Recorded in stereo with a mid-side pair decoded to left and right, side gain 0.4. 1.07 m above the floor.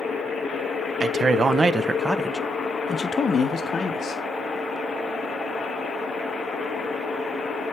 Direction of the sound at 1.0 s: 60° right.